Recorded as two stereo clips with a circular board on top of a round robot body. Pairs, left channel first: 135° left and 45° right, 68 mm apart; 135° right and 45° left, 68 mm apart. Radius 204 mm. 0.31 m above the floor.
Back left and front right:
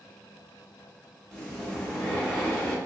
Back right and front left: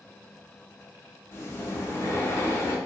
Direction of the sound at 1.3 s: 150° right.